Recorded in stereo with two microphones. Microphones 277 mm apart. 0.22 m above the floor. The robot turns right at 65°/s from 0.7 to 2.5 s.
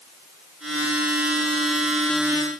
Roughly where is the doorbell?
I don't hear a doorbell.